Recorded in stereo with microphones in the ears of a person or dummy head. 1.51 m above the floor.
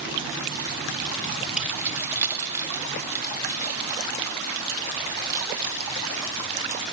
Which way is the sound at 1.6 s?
5° right (ahead or behind).